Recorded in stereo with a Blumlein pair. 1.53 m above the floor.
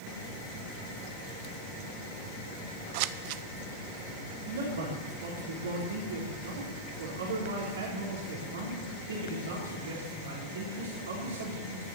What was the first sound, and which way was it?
Scissors, 45° right.